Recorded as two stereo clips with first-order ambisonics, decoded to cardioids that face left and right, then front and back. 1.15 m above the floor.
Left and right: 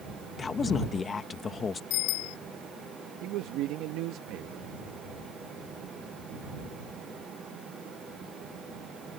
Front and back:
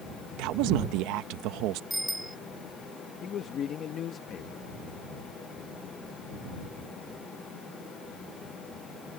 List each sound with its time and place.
0.4 s a woman speaking: 160° left
1.9 s a bicycle bell: 95° left
3.2 s a man speaking: 55° right